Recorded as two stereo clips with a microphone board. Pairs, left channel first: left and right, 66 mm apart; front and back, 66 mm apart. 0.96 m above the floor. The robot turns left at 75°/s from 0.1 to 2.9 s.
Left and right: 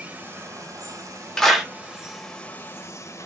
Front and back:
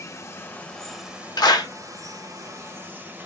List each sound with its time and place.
0.0 s running water: 30° right, 1.0 m; by 3.3 s 120° left, 1.0 m
1.4 s a clap: 10° left, 1.2 m; by 1.7 s 15° right, 1.2 m